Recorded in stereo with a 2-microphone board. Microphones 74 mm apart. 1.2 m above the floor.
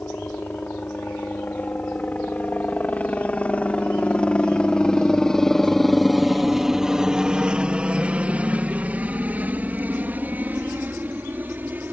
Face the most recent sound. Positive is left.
turn(degrees=-25)  # may be behind; listen again after turning